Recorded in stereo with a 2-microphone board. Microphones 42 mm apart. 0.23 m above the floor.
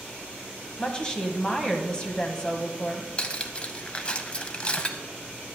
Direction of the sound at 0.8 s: 20° left (ahead or behind).